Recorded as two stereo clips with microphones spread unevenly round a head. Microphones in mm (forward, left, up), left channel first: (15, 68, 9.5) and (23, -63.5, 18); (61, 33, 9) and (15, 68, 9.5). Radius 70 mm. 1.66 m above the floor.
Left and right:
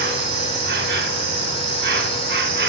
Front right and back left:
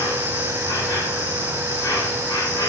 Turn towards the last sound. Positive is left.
turn(degrees=-100)